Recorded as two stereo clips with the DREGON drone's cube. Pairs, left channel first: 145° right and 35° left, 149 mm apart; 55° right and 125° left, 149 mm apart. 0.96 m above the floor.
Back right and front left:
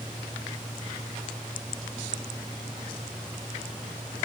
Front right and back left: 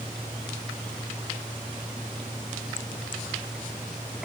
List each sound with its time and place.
Only background noise.